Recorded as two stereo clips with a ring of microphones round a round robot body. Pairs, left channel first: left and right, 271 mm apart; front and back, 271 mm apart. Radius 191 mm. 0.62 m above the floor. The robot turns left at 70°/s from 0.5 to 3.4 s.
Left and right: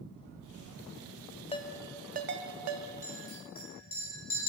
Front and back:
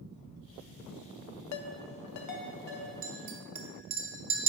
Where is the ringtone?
20° left, 0.6 m; by 2.9 s 75° right, 0.6 m.